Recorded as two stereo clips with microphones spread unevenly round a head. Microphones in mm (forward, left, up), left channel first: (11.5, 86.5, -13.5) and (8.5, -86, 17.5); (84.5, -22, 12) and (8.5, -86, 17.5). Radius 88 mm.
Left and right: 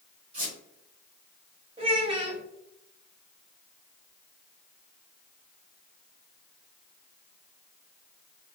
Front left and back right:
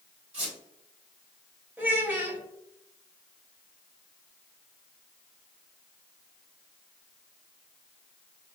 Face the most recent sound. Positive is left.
turn(degrees=-85)